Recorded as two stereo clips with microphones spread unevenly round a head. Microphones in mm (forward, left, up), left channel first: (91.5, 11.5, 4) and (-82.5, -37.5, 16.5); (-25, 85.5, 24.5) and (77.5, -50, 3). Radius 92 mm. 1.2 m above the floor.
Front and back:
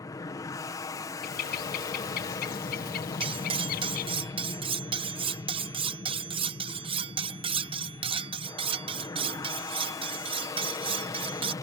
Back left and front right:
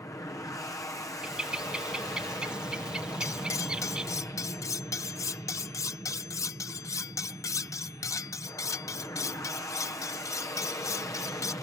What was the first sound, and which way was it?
An aircraft, 60° left.